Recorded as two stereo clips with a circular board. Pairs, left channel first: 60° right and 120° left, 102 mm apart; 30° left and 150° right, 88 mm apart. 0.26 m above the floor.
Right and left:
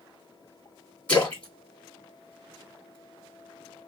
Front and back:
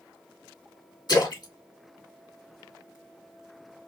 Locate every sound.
1.1 s a splash: 15° left, 2.5 m